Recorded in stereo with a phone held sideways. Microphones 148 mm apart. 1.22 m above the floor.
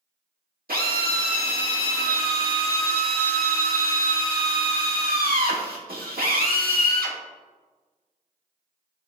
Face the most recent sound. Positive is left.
turn(degrees=-80)